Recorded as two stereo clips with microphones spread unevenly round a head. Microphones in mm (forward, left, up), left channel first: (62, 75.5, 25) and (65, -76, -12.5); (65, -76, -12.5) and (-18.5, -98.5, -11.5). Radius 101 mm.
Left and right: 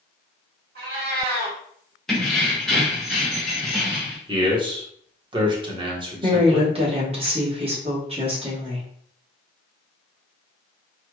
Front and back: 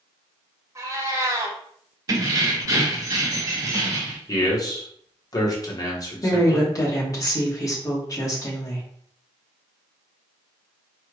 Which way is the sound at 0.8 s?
120° right.